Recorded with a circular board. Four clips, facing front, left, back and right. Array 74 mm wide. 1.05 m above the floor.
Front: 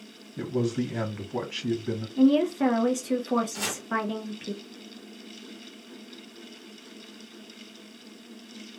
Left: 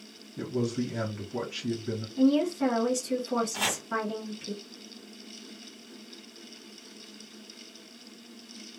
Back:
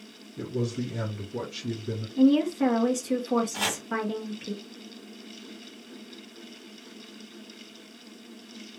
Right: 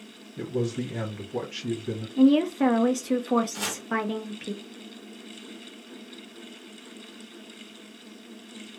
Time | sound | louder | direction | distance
0.4 | a man speaking | right 1 dB, front 3 dB | 10° right | 1.4 m
2.2 | a woman speaking | right 4 dB, even | 75° right | 0.6 m
3.5 | chopping | left 2 dB, back 3 dB | 150° left | 0.9 m